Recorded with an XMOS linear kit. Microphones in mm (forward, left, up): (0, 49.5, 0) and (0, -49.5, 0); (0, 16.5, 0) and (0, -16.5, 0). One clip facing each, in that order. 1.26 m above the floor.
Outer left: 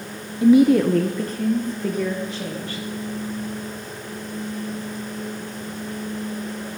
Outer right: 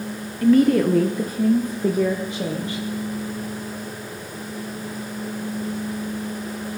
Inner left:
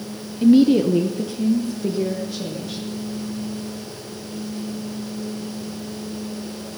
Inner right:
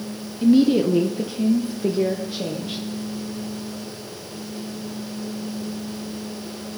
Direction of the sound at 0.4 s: 15° left (ahead or behind).